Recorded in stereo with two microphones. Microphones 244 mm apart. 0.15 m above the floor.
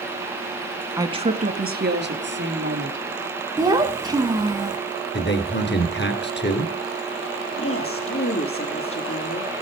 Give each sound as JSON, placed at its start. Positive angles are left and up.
{"t": 1.0, "sound": "a woman speaking", "side_deg": -15, "distance_m": 1.0}
{"t": 3.6, "sound": "a child speaking", "side_deg": -15, "distance_m": 0.8}
{"t": 5.1, "sound": "a man speaking", "side_deg": 50, "distance_m": 2.5}
{"t": 7.6, "sound": "a woman speaking", "side_deg": 70, "distance_m": 4.0}